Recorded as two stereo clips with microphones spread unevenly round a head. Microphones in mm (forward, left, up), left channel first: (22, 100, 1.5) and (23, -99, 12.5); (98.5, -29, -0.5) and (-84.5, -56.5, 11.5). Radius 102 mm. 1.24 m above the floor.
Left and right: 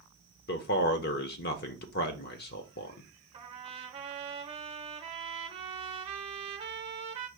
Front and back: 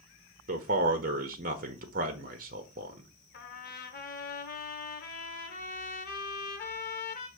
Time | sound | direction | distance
0.5 | a man speaking | 135° left | 0.5 m
3.3 | a trumpet | 30° right | 1.0 m